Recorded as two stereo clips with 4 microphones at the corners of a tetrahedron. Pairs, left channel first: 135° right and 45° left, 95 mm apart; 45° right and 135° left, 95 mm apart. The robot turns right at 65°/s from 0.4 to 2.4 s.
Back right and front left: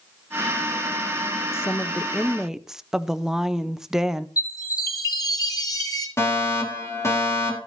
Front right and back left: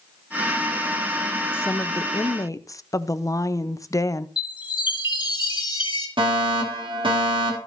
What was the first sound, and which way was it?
A woman speaking, 95° right.